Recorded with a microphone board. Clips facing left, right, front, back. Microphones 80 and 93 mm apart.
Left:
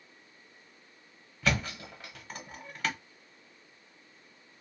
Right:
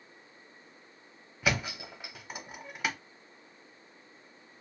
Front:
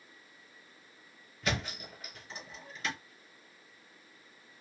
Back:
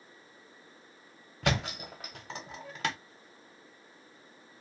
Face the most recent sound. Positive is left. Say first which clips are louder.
# even, back 4 dB
turn(degrees=-165)